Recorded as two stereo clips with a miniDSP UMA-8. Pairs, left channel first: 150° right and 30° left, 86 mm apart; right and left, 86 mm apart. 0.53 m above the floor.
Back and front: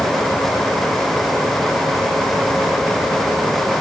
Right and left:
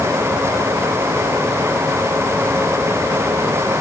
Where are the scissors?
I don't hear scissors.